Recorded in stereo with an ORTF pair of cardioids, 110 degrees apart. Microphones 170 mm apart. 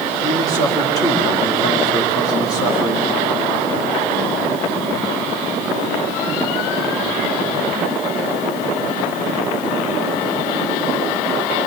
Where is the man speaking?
20° left, 3.5 m.